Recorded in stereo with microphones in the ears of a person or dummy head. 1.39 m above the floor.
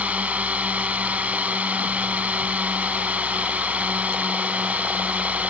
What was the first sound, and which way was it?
A drone, 5° right (ahead or behind).